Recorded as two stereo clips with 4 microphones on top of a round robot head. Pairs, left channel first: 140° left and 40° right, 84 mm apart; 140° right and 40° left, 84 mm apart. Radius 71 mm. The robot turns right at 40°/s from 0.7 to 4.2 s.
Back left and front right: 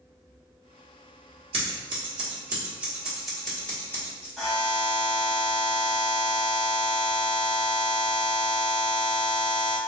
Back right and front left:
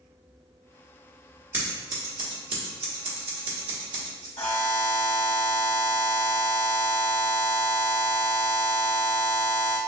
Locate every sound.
1.5 s scissors: 25° right, 1.1 m; by 4.3 s 85° left, 1.1 m
4.4 s a buzzer: 140° right, 1.4 m